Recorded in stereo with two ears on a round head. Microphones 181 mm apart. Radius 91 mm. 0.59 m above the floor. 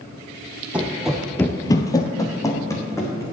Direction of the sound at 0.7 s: 5° right (ahead or behind).